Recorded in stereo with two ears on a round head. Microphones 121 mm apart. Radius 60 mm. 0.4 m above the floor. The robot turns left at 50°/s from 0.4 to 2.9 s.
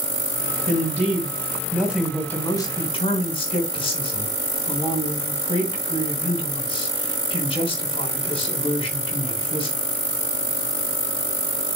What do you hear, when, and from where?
0.7 s a man speaking: 110° right, 3 m; by 9.8 s 135° left, 3 m